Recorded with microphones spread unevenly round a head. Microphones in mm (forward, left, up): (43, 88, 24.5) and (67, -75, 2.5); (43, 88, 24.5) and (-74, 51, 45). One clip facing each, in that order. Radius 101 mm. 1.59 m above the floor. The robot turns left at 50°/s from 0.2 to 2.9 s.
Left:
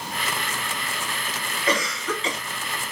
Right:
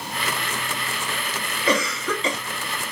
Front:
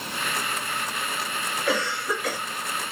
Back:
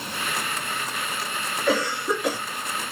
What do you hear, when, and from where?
1.7 s a cough: 70° right, 1.1 m; by 2.4 s 110° right, 1.1 m